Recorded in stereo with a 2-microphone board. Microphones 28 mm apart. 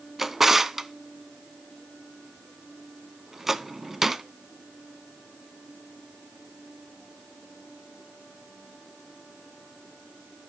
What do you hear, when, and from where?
0.2 s a drawer: 10° right (ahead or behind), 0.5 m